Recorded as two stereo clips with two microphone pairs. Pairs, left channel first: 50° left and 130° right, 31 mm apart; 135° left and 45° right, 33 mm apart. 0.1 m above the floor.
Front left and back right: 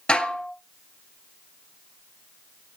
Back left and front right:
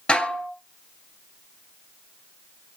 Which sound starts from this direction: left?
Dishes clattering, at 0.1 s.